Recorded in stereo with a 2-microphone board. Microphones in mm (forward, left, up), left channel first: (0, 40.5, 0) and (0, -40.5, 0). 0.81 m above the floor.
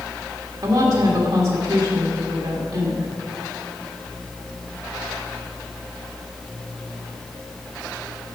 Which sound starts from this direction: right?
A woman speaking, at 0.6 s.